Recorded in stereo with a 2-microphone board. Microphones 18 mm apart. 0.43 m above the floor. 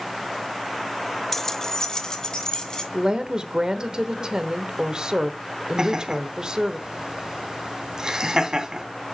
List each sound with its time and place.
1.3 s keys jangling: 20° left (ahead or behind), 0.6 m; by 2.8 s 50° left (ahead or behind), 2 m
2.9 s a woman speaking: 45° right (ahead or behind), 1.0 m
5.8 s laughter: 40° right (ahead or behind), 2.5 m